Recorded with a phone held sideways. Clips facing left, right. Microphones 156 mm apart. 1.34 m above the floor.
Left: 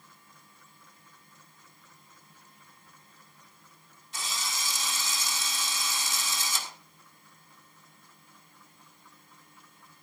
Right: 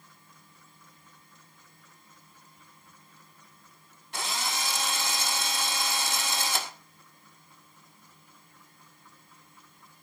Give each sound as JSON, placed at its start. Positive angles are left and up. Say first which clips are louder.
{"t": 4.1, "sound": "a drill", "louder": "right 5 dB", "side_deg": -65, "distance_m": 1.7}